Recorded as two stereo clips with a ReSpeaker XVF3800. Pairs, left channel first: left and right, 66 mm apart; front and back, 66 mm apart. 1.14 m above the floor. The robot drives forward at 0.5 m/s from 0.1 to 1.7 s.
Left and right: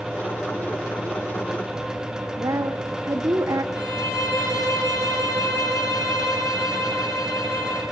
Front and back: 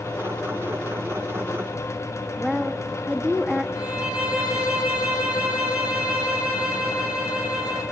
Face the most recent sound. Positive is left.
turn(degrees=110)